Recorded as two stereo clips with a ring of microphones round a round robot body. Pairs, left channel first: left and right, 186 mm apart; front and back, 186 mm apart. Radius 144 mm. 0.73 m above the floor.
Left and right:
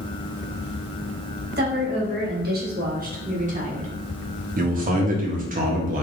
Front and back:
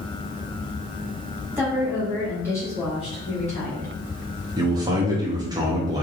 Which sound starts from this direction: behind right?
A man speaking, at 4.6 s.